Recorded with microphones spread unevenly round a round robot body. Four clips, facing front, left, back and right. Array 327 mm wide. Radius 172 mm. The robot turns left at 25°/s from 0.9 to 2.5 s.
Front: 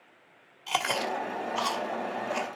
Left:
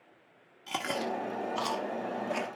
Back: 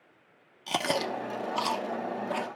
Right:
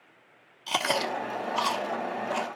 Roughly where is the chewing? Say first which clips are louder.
Right 5 dB, even; behind.